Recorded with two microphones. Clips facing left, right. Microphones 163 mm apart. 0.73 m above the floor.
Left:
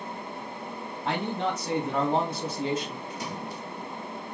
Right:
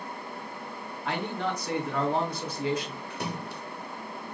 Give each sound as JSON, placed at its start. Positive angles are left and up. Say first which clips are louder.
{"t": 1.1, "sound": "a man speaking", "louder": "left 2 dB", "side_deg": 25, "distance_m": 2.5}
{"t": 3.1, "sound": "a splash", "louder": "even", "side_deg": -60, "distance_m": 0.9}